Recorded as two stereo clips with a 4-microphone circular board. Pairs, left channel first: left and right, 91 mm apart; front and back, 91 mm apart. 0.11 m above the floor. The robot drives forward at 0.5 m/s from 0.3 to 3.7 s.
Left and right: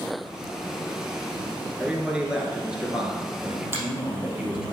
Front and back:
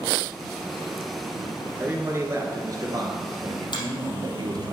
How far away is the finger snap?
About 3.5 m.